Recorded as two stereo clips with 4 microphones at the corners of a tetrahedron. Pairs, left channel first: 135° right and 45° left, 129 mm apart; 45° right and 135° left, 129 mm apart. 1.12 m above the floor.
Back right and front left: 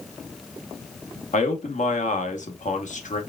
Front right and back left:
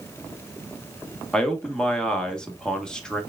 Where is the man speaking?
130° right, 1.1 m.